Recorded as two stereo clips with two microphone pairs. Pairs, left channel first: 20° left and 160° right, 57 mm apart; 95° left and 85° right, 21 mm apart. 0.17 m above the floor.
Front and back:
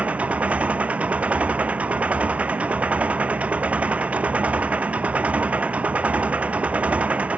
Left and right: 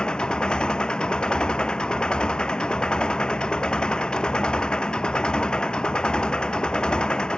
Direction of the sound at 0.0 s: 135° left.